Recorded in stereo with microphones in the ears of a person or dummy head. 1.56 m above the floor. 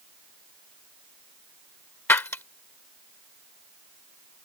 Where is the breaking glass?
15° left (ahead or behind).